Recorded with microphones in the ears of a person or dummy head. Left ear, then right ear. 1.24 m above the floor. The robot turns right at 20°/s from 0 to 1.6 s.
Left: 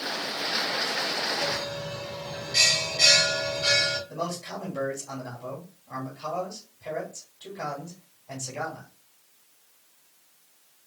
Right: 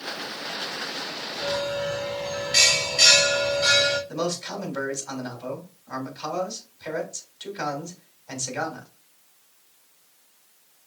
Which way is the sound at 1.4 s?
45° right (ahead or behind).